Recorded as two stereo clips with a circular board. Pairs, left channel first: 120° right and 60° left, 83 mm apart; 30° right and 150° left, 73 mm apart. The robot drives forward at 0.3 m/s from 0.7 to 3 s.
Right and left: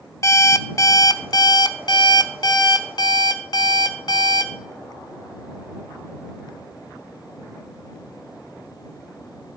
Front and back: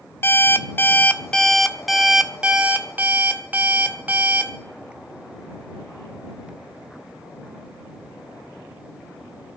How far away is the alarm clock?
About 0.5 m.